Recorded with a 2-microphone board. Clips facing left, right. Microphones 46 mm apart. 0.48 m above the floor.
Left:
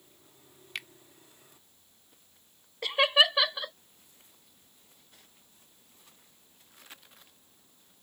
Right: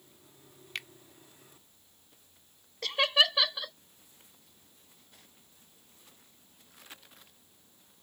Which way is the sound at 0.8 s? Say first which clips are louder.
Even; centre (ahead or behind).